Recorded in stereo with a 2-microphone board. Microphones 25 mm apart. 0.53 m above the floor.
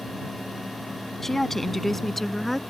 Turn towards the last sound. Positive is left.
turn(degrees=5)  # may be behind; listen again after turning